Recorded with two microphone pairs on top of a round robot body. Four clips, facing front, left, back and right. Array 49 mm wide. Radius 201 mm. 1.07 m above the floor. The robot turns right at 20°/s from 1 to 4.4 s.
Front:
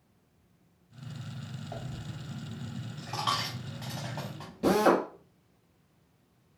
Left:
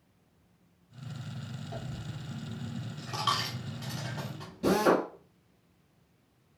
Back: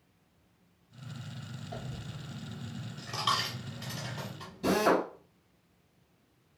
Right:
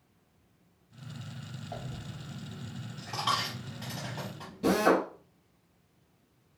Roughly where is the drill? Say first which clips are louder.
Even, front 3 dB; ahead.